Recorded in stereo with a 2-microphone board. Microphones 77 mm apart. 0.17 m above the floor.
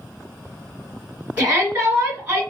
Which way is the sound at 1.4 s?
20° right (ahead or behind).